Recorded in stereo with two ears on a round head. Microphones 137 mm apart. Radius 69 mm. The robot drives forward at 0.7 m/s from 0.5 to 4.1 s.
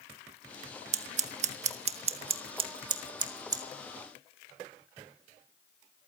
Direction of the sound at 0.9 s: 45° right (ahead or behind).